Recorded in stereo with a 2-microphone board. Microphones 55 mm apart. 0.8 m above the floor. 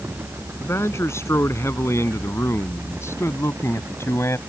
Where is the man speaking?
55° left (ahead or behind).